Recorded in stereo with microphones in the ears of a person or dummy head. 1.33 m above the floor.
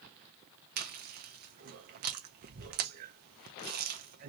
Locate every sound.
0.8 s chewing: 50° right (ahead or behind), 0.6 m